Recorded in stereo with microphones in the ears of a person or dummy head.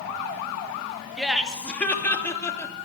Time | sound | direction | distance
1.2 | laughter | centre (ahead or behind) | 2 m